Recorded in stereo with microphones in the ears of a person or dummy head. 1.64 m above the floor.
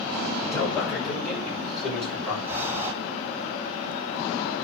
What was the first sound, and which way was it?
A man speaking, 15° left (ahead or behind).